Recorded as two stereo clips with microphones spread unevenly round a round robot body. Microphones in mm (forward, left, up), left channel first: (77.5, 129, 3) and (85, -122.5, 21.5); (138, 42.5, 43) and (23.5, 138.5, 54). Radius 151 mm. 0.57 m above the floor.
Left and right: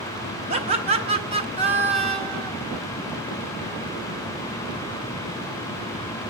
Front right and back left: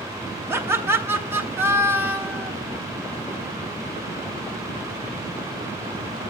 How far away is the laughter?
About 0.7 m.